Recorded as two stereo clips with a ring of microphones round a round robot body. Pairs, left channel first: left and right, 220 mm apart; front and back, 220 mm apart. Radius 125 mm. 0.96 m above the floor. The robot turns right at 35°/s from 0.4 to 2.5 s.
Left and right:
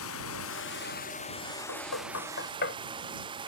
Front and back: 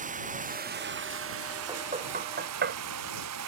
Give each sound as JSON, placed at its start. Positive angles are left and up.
{"t": 0.0, "sound": "running water", "azimuth_deg": 125}
{"t": 1.7, "sound": "knocking", "azimuth_deg": 110}